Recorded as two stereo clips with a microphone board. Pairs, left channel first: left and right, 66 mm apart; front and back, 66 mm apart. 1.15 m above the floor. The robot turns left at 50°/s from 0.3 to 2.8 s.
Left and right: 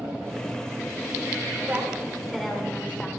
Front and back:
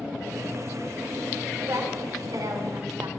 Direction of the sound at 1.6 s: 145° right.